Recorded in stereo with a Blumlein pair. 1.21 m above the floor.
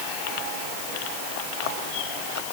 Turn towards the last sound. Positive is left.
No sound to turn to.